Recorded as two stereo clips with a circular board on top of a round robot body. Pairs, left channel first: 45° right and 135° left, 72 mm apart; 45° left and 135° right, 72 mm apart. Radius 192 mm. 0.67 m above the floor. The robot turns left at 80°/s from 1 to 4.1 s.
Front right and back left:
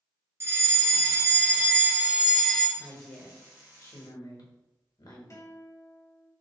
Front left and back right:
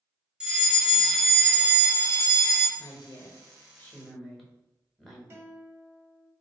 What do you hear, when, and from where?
0.4 s a fire alarm: 155° left, 1.6 m; by 2.7 s 20° left, 1.6 m
2.8 s a woman speaking: 60° left, 1.5 m; by 5.2 s 45° right, 1.5 m
5.3 s a guitar: 85° right, 1.8 m